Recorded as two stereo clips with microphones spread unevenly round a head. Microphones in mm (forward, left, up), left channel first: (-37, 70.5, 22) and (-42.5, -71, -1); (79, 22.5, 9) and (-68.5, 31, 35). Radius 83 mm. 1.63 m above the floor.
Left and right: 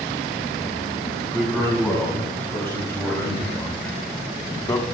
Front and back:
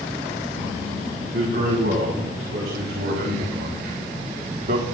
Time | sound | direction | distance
1.3 | a man speaking | 165° left | 6 m